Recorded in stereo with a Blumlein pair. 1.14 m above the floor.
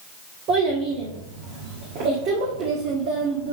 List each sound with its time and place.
0.5 s a child speaking: 40° right, 1.6 m